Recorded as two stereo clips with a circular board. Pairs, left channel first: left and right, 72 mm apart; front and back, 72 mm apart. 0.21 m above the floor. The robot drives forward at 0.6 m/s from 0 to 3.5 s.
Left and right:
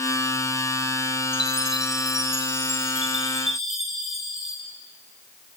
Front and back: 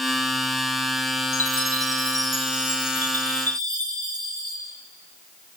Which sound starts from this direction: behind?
A chime, at 1.3 s.